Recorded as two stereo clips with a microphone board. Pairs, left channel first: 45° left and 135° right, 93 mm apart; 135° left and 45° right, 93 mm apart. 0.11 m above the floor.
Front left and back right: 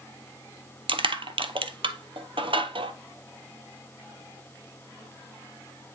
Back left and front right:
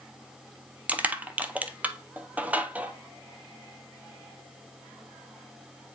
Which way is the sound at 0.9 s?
120° right.